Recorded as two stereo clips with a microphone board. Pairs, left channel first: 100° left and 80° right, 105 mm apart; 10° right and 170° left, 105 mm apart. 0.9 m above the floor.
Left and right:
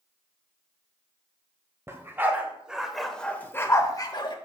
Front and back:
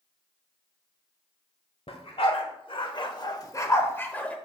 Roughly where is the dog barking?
Ahead.